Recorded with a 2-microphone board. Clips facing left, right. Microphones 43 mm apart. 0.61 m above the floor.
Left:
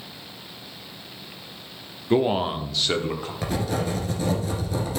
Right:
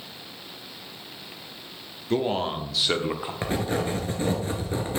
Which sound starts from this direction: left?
A man speaking, at 2.1 s.